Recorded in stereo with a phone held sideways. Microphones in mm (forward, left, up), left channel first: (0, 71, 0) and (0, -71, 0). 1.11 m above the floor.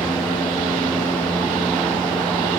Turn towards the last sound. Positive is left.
turn(degrees=30)  # may be behind; listen again after turning